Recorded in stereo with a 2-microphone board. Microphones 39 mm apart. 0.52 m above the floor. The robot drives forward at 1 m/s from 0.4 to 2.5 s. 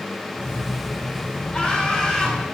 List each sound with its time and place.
1.5 s laughter: 30° left (ahead or behind), 4.5 m; by 2.5 s 25° left (ahead or behind), 5 m